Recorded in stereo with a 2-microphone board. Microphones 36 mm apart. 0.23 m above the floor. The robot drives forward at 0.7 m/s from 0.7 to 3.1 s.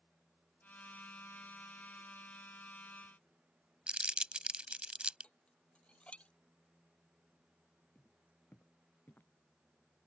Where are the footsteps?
65° left (ahead or behind).